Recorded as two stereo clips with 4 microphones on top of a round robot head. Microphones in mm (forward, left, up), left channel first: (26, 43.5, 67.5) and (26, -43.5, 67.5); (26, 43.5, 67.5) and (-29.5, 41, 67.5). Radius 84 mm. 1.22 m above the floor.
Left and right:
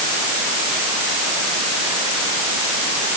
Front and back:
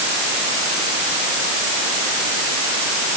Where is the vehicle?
No vehicle in this recording.